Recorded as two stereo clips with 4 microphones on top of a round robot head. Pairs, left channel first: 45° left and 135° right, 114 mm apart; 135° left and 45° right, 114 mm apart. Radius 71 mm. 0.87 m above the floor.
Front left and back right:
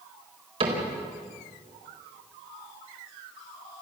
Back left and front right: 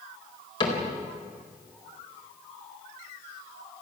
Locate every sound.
0.6 s a cupboard door: 175° right, 4.5 m